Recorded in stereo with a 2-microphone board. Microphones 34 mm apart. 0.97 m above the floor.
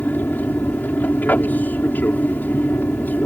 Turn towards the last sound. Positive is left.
turn(degrees=60)  # may be behind; listen again after turning